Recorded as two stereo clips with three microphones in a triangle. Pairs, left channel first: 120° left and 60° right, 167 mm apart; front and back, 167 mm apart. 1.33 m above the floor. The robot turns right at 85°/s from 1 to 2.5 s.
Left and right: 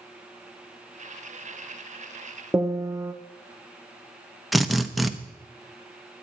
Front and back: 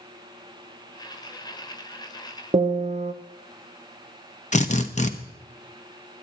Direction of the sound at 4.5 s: 30° left.